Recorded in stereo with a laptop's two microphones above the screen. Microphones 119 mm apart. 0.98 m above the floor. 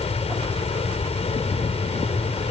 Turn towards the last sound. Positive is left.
turn(degrees=65)  # may be behind; listen again after turning